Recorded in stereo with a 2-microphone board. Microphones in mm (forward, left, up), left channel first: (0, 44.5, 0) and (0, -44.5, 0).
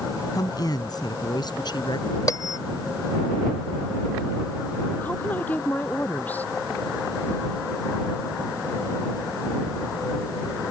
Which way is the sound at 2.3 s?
45° left (ahead or behind).